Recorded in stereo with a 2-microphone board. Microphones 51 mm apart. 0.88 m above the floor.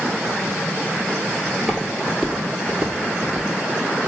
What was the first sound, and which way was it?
Footsteps, 15° left (ahead or behind).